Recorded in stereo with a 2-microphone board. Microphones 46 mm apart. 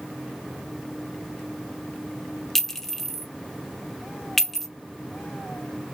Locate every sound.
2.5 s a clink: 10° left (ahead or behind), 0.8 m